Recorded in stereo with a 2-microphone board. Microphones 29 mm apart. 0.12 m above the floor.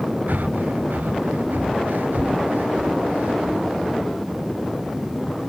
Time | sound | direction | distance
0.3 | breathing | 80° right | ?